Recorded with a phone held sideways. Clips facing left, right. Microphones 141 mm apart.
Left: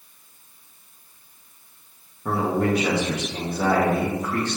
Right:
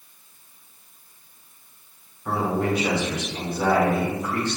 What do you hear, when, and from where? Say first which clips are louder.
2.2 s a man speaking: left 2 dB; 55° left (ahead or behind), 1.1 m